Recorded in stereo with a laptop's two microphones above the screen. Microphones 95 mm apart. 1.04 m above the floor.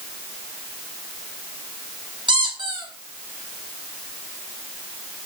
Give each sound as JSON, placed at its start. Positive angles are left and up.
{"t": 2.3, "sound": "a squeak", "side_deg": -55, "distance_m": 7.0}